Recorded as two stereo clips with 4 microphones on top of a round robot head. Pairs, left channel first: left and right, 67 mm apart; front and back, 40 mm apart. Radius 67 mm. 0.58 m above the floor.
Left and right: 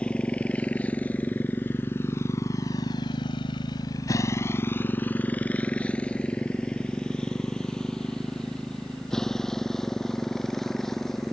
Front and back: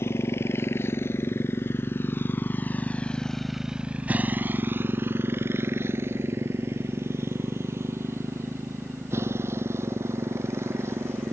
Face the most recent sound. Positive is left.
turn(degrees=175)